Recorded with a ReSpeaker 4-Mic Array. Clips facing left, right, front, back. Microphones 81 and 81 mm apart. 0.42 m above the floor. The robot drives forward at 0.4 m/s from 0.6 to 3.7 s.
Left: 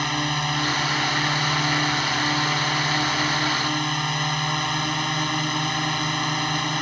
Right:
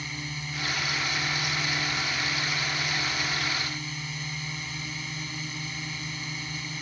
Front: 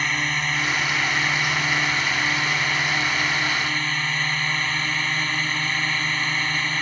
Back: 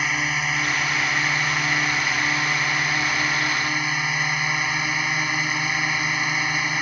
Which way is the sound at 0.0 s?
95° left.